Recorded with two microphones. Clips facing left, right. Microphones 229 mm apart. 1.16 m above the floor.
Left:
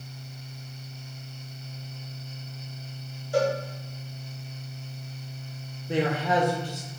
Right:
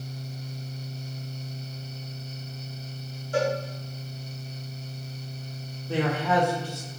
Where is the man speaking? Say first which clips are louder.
Even; 15° left (ahead or behind), 0.6 m.